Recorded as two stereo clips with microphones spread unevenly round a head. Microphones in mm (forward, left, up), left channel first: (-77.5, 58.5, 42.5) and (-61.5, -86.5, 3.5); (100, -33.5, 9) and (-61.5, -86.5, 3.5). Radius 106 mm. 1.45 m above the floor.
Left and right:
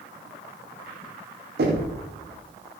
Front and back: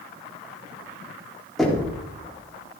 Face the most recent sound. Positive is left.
turn(degrees=-70)